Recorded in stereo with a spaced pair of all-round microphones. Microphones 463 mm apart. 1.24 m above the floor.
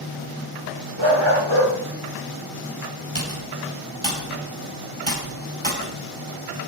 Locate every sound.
1.0 s a dog barking: 75° right (ahead or behind), 6.5 m
3.1 s typing on a keyboard: 85° right, 6.5 m